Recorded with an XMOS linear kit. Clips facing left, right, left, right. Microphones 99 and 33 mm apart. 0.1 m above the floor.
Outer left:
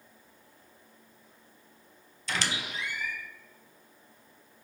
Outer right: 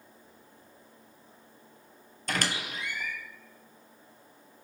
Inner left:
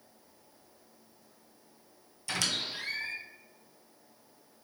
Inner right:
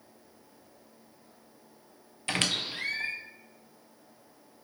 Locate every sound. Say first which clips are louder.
2.3 s a squeak: outer right 1 dB, inner right 3 dB; 45° right (ahead or behind), 0.7 m